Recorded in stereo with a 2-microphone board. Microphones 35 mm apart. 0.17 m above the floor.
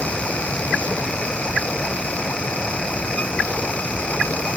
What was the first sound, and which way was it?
Only background noise.